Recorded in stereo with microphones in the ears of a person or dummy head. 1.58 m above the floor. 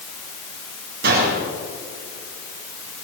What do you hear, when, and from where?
1.0 s a gunshot: 60° right (ahead or behind), 4 m